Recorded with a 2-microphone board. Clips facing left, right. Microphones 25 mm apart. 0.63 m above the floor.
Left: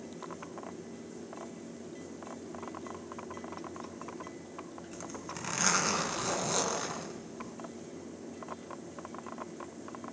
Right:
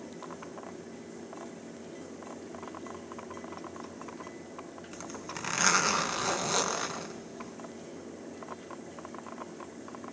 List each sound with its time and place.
4.9 s a zipper: 25° right (ahead or behind), 3 m